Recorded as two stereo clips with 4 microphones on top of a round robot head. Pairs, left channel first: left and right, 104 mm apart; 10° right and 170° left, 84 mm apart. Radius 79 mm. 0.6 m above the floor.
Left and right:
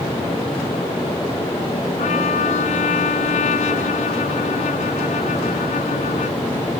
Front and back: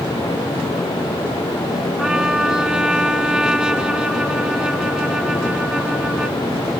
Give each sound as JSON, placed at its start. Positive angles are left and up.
{"t": 2.0, "sound": "a trumpet", "azimuth_deg": 90}